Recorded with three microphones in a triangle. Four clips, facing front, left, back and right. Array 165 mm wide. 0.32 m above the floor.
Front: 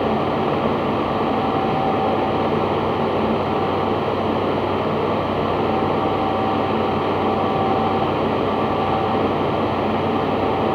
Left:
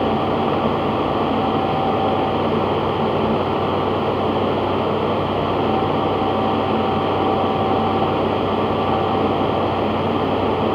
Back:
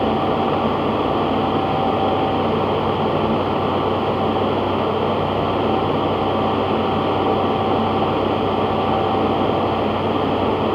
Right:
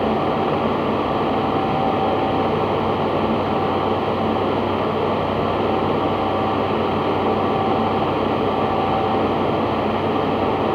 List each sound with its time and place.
Only background noise.